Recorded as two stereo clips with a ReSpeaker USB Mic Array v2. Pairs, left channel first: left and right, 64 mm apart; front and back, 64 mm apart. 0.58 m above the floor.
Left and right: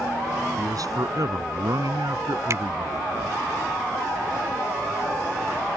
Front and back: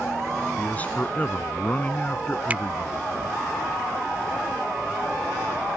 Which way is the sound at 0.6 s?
65° right.